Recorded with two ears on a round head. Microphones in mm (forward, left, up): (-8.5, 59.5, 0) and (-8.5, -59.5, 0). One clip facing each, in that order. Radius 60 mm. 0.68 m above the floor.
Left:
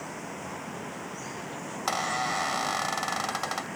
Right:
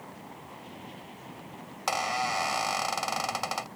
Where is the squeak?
10° right (ahead or behind).